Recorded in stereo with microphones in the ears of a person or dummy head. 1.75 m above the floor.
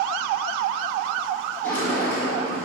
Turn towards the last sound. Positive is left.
turn(degrees=15)  # may be behind; listen again after turning